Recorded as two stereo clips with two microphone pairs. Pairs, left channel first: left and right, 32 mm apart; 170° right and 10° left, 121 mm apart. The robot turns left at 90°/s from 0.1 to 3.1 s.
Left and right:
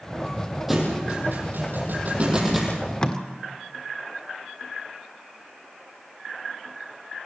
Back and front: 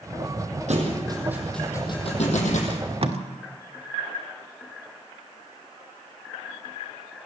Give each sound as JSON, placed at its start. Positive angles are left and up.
{"t": 0.7, "sound": "a thud", "azimuth_deg": -10, "distance_m": 6.5}
{"t": 2.7, "sound": "tape being pulled", "azimuth_deg": 55, "distance_m": 1.4}